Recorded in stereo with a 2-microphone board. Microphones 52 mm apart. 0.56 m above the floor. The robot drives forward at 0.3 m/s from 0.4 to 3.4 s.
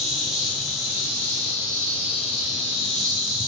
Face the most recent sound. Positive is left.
turn(degrees=0)  # may be behind; listen again after turning